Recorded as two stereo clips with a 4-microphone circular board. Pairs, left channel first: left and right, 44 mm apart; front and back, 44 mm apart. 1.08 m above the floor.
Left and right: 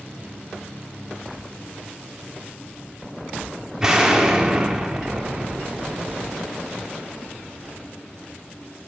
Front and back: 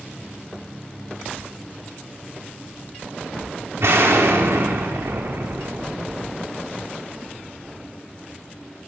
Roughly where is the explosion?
Behind.